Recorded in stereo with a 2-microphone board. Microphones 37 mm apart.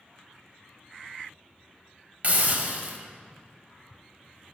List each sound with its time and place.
2.2 s a hiss: 45° right (ahead or behind), 1.1 m